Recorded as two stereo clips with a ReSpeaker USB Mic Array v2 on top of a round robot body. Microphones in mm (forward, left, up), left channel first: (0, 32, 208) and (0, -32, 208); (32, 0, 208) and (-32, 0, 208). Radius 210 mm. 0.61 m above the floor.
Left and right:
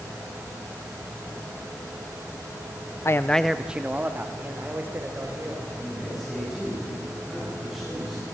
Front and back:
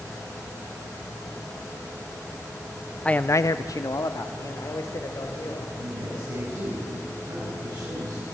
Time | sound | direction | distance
3.0 | a man speaking | 70° left | 0.7 m
5.8 | a man speaking | straight behind | 8 m